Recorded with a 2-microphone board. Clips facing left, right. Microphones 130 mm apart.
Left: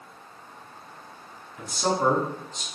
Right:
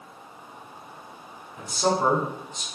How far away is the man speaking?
About 1.6 m.